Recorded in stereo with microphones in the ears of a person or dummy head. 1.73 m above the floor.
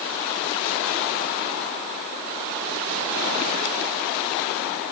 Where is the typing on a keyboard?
No typing on a keyboard in this recording.